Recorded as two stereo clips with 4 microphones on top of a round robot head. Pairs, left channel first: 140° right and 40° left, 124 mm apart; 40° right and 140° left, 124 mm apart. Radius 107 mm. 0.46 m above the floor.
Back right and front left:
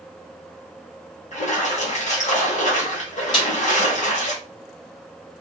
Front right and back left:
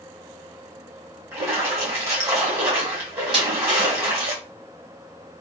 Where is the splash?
155° right, 1.9 m.